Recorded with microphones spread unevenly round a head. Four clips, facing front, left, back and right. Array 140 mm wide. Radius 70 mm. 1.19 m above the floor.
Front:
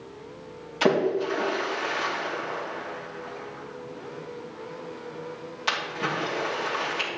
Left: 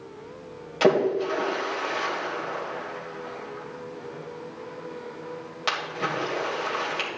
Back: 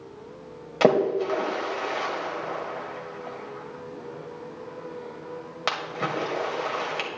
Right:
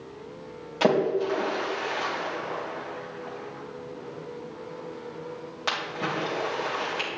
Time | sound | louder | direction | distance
0.8 | a splash | left 2 dB, back 2 dB | 175° left | 2.5 m